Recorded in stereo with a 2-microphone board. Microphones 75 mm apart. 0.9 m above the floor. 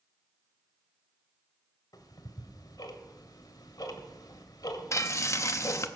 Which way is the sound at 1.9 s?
65° left (ahead or behind).